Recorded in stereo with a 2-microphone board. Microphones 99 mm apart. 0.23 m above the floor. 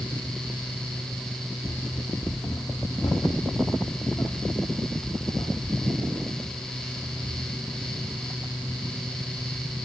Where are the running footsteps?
50° left (ahead or behind), 0.9 m; by 8.2 s 55° left (ahead or behind), 4.5 m.